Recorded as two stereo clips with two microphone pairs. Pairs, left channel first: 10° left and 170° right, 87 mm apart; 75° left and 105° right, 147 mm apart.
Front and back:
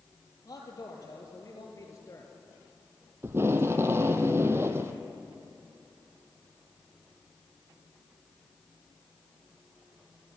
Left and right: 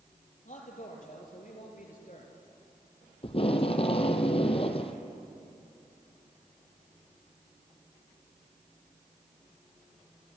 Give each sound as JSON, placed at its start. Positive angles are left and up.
{"t": 0.5, "sound": "a man speaking", "azimuth_deg": 55, "distance_m": 5.0}
{"t": 3.2, "sound": "tape being pulled", "azimuth_deg": 125, "distance_m": 1.3}